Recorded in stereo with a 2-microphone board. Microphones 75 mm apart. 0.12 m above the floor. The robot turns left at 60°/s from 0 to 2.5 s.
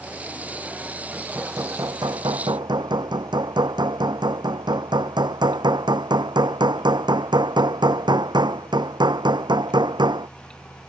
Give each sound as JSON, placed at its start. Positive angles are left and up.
{"t": 1.1, "sound": "hammering", "azimuth_deg": -10}